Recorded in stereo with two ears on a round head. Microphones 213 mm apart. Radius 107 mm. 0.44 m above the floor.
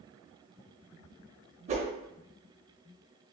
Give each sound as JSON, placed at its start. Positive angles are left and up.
{"t": 1.7, "sound": "a whoosh", "side_deg": -30, "distance_m": 0.6}